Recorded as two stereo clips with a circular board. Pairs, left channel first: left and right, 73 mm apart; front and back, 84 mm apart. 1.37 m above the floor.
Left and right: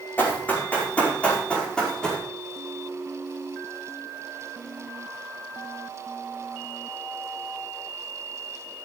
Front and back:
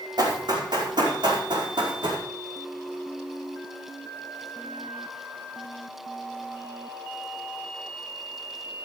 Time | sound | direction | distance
0.2 | running footsteps | 155° left | 5 m